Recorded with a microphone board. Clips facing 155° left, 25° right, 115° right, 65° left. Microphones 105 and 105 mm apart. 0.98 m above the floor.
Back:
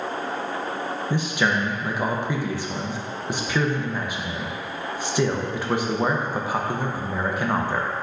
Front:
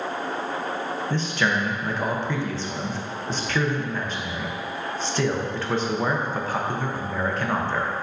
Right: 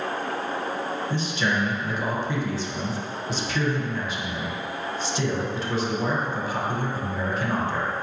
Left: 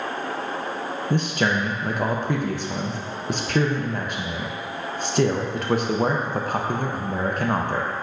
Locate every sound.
1.1 s a man speaking: 80° left, 0.6 m